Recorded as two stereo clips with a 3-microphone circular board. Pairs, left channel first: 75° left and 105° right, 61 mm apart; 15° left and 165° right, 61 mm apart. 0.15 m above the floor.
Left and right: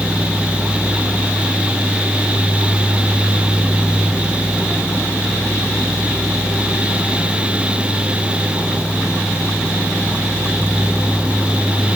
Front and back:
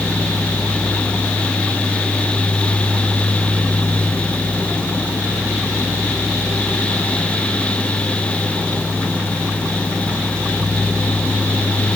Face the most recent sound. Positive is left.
No sound to turn to.